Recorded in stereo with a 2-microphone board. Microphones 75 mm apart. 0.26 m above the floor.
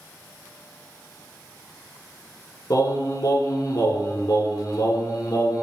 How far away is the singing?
About 0.5 m.